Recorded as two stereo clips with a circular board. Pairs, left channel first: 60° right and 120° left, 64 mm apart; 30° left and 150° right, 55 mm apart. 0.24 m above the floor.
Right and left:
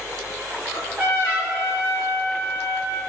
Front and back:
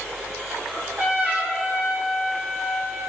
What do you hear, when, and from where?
0.7 s a trumpet: 160° left, 2.0 m